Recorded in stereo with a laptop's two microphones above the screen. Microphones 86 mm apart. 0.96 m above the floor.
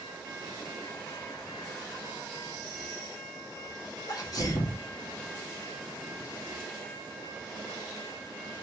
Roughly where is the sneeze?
Left.